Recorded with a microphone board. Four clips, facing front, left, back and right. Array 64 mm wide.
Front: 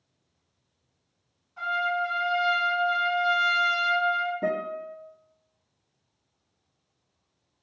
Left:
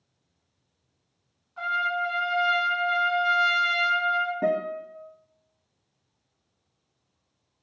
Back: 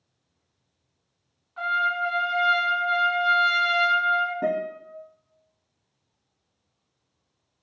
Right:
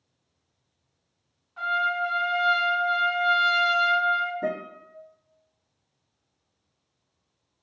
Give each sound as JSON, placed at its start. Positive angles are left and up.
{"t": 1.6, "sound": "a trumpet", "azimuth_deg": -165, "distance_m": 1.8}
{"t": 4.4, "sound": "a guitar", "azimuth_deg": 115, "distance_m": 1.3}